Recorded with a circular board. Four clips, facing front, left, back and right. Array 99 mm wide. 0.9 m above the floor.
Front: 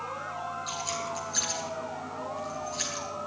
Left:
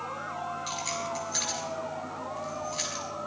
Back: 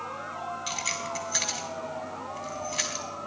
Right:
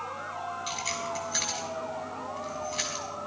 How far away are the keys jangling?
About 3.5 m.